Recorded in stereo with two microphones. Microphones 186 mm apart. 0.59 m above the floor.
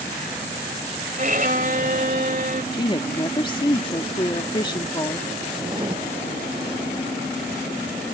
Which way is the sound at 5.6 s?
25° right (ahead or behind).